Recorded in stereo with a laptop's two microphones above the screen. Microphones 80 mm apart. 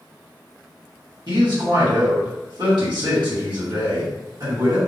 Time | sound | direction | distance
1.3 | a man speaking | 65° right (ahead or behind) | 1.2 m